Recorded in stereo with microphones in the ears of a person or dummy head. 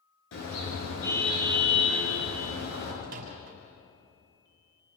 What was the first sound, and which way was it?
A car horn, 80° left.